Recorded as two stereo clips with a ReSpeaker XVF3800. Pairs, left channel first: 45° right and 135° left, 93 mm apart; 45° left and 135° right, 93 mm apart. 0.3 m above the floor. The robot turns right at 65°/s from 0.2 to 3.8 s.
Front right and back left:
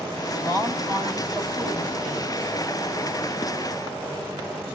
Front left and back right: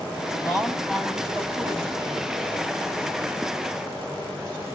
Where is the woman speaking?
90° left, 2 m; by 2.4 s 140° right, 2 m.